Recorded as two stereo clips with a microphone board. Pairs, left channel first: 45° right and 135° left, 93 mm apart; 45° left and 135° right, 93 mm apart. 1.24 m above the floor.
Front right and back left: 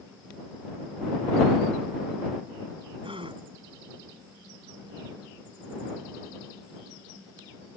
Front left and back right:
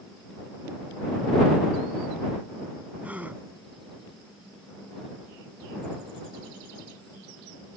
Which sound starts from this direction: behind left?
A gasp, at 3.0 s.